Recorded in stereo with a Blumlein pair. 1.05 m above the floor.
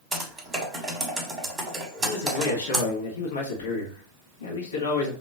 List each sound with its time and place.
0.1 s typing on a keyboard: 10° right, 1.2 m
2.0 s a man speaking: 65° left, 1.2 m